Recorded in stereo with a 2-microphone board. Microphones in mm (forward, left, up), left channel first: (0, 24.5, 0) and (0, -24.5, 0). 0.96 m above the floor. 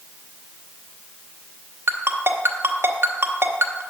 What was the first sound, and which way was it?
A ringtone, 55° right (ahead or behind).